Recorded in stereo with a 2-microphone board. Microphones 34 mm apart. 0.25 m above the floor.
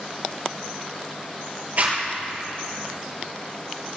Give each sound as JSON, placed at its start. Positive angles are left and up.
{"t": 1.8, "sound": "a zipper", "side_deg": -50, "distance_m": 4.5}